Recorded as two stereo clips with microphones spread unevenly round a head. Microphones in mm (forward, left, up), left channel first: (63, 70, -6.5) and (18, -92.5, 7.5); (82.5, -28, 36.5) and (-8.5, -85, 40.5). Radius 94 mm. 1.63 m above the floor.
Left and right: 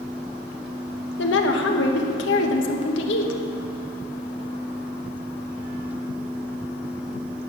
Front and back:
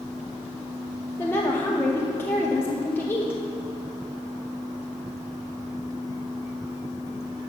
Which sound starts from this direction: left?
A woman speaking, at 1.2 s.